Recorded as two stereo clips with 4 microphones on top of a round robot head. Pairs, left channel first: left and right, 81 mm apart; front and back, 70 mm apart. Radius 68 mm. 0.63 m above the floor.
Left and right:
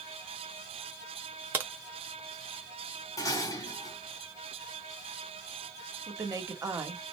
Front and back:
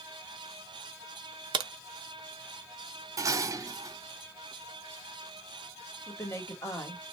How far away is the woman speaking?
About 1.3 m.